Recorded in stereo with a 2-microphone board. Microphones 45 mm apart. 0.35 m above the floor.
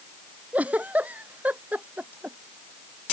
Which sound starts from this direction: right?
A giggle, at 0.5 s.